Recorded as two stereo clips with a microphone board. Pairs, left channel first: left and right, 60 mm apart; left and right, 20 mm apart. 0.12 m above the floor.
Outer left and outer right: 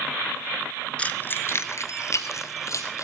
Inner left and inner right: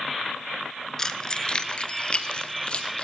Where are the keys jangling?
20° left (ahead or behind), 0.8 m; by 3.0 s 60° left (ahead or behind), 2.5 m.